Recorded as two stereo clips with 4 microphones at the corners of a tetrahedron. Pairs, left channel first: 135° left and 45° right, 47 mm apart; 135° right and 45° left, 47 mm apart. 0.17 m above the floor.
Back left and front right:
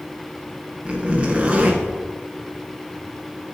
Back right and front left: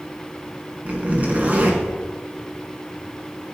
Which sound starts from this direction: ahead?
A zipper, at 0.8 s.